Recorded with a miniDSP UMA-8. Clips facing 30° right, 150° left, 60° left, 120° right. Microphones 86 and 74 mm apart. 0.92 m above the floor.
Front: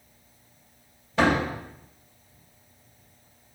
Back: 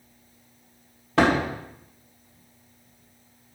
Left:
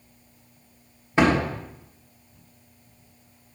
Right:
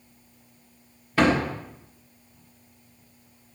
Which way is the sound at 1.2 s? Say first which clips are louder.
Back 2 dB, left 1 dB; 130° left.